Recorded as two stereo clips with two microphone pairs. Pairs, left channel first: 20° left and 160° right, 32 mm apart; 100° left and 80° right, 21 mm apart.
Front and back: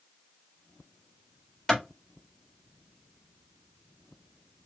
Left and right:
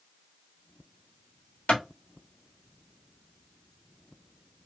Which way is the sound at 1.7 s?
90° left.